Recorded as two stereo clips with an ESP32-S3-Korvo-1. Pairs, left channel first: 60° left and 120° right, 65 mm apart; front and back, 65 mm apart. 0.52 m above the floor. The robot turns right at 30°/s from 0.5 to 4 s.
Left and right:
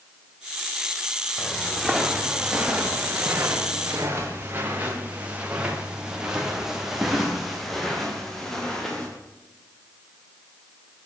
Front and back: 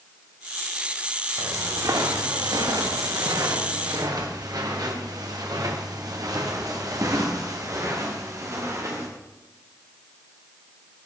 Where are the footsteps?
135° left, 4.5 m; by 9.1 s 140° left, 5.5 m.